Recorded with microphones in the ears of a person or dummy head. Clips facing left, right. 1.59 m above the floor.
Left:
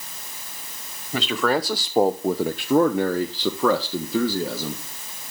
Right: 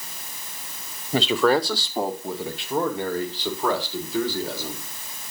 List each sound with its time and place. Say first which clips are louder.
1.1 s a man speaking: right 3 dB; 20° right (ahead or behind), 0.8 m; by 4.8 s 75° left (ahead or behind), 2.0 m